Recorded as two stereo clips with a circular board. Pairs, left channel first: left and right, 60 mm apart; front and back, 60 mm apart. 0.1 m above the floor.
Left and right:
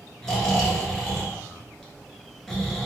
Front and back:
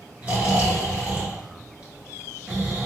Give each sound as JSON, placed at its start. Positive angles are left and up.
{"t": 0.2, "sound": "snoring", "azimuth_deg": 170, "distance_m": 1.2}